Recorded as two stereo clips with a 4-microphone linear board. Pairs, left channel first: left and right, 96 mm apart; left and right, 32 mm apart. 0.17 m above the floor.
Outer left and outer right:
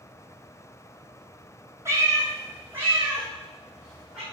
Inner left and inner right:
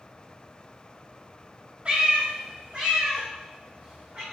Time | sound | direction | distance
1.9 | a cat meowing | 30° right (ahead or behind) | 1.1 m